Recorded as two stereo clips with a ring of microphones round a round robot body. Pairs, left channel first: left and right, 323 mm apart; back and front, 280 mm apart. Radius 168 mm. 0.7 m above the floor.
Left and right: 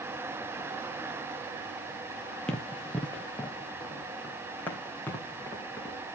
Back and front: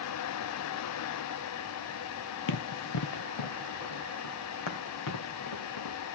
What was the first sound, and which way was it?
Running footsteps, 175° left.